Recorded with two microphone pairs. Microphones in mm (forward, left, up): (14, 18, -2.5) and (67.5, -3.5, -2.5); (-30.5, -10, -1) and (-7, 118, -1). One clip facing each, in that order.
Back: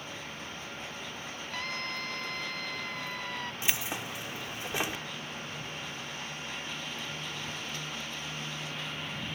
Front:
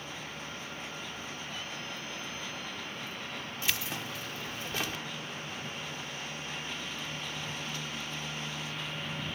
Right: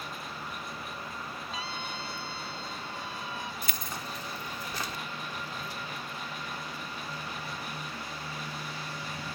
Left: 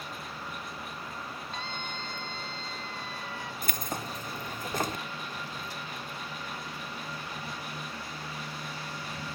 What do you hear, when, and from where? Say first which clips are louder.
1.5 s a scream: back 4 dB, right 1 dB; 175° left; by 3.5 s 175° right
3.6 s keys jangling: even, left 3 dB; 85° left